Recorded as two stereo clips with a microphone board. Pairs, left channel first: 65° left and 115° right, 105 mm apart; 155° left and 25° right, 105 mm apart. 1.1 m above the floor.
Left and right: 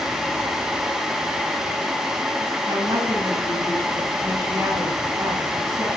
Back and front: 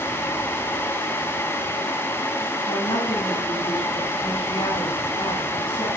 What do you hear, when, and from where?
2.7 s a woman speaking: 170° right, 8 m